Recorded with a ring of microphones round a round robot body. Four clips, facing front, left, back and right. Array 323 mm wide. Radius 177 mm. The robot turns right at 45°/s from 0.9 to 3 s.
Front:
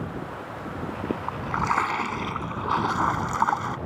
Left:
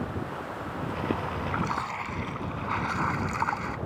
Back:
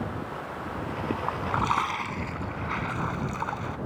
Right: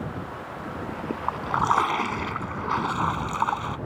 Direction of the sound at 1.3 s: 95° right.